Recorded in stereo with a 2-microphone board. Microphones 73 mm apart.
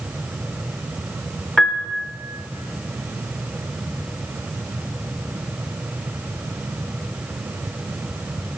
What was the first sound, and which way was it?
A piano, 10° left (ahead or behind).